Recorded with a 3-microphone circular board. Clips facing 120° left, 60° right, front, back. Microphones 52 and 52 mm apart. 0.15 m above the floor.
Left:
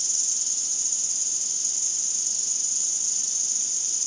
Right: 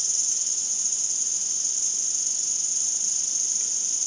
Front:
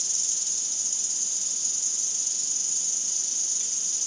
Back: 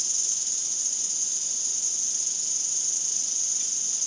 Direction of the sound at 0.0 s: 85° right.